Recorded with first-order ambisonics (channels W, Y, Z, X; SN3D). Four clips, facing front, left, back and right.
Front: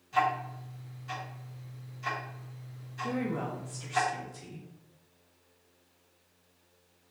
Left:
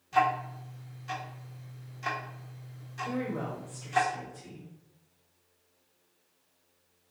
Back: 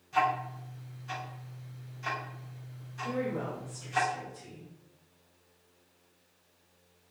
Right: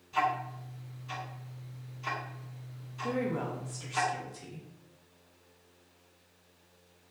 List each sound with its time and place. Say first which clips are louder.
0.1 s ticking: left 4 dB, even; 85° left, 1.4 m
3.0 s a woman speaking: right 2 dB, even; 55° right, 0.6 m